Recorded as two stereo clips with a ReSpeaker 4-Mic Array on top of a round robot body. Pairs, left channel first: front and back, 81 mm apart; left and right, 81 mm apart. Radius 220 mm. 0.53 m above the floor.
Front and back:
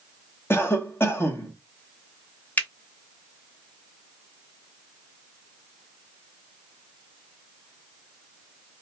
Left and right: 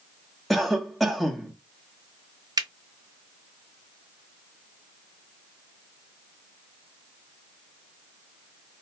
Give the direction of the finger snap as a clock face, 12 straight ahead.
2 o'clock.